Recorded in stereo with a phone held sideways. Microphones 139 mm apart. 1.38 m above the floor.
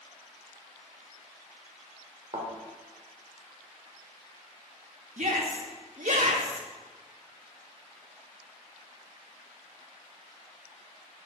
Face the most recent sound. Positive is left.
turn(degrees=-65)  # may be behind; listen again after turning